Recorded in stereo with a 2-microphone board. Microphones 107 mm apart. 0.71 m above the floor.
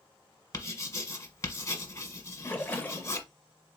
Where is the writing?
30° left (ahead or behind), 1.1 m.